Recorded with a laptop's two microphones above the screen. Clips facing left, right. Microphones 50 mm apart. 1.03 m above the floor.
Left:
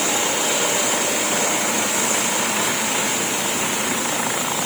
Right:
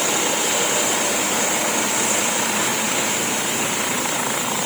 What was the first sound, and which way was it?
Only background noise.